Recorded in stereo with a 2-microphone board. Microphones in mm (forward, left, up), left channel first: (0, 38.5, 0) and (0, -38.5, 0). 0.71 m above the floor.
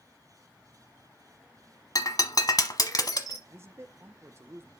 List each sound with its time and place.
1.9 s breaking glass: 55° left (ahead or behind), 1.0 m
3.5 s a man speaking: 35° right (ahead or behind), 0.8 m